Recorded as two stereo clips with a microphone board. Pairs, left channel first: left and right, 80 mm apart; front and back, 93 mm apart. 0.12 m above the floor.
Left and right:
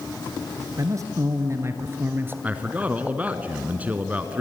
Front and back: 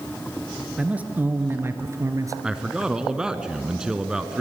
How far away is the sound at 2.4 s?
About 1.1 m.